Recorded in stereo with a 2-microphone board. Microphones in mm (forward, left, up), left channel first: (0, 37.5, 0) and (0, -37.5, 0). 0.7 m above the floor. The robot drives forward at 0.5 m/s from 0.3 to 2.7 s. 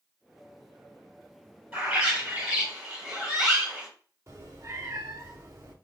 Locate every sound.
1.7 s a bird: 20° right (ahead or behind), 1.9 m; by 3.9 s 15° right (ahead or behind), 2.5 m
4.3 s a cat meowing: 50° right (ahead or behind), 0.8 m